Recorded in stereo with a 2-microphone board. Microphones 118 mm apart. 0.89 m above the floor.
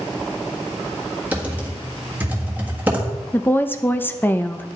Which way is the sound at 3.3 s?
20° left (ahead or behind).